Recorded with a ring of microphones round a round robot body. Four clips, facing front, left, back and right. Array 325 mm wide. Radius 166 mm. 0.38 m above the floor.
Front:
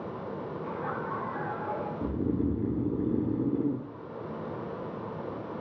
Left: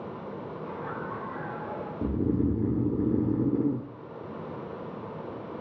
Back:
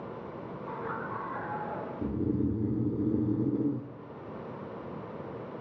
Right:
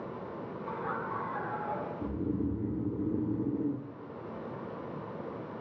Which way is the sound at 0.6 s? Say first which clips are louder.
Right 1 dB, front 1 dB; 5° left.